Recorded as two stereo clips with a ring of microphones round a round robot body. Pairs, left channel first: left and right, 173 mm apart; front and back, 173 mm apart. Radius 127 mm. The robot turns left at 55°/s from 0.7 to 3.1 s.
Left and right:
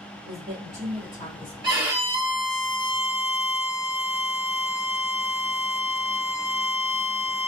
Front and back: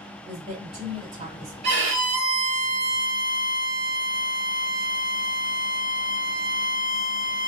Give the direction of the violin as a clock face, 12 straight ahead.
5 o'clock.